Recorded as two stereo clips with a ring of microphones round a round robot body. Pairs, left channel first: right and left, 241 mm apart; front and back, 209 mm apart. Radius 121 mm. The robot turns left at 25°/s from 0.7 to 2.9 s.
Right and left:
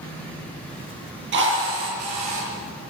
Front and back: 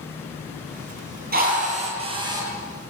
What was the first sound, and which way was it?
A drill, 135° left.